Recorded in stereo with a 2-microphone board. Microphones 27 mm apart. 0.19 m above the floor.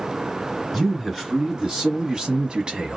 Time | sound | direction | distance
0.7 | a man speaking | 5° right (ahead or behind) | 1.5 m